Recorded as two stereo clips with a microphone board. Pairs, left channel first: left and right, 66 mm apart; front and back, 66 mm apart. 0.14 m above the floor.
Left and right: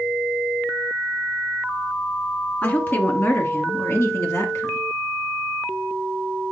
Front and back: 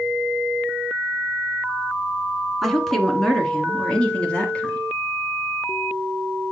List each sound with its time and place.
2.6 s a woman speaking: 90° left, 1.7 m; by 4.9 s 65° left, 2.5 m